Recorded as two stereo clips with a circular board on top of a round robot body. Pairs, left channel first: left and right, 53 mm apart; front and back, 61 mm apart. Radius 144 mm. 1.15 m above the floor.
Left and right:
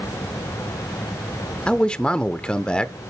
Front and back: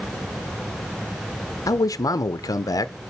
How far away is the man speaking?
About 0.9 m.